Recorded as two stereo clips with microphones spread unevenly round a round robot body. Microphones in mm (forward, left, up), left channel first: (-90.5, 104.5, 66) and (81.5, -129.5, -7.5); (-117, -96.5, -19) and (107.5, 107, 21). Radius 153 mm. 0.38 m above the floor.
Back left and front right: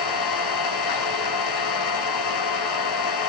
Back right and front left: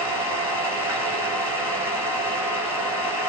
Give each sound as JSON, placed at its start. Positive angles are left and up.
{"t": 0.0, "sound": "an engine running", "azimuth_deg": 125, "distance_m": 8.0}